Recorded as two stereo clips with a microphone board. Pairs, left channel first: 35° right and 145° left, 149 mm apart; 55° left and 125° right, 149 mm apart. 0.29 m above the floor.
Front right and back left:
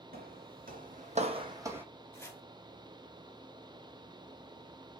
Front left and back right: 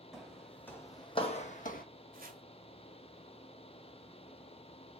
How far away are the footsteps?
About 1.0 m.